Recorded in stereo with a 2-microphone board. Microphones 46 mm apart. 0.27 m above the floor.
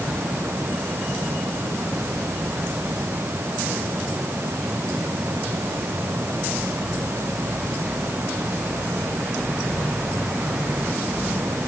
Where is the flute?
No flute in this recording.